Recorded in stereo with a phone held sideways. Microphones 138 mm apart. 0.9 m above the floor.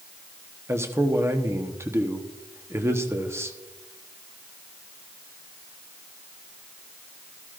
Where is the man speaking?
20° right (ahead or behind), 1.0 m.